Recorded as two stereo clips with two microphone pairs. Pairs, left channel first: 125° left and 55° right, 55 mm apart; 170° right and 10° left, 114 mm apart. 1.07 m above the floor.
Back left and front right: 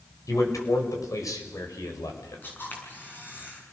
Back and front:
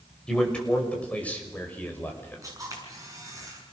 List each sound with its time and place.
0.3 s a man speaking: 105° left, 5.5 m; by 2.4 s 115° left, 5 m
2.4 s a camera shutter: 70° left, 7 m